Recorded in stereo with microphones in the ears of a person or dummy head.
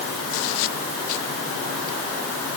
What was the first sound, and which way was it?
Only background noise.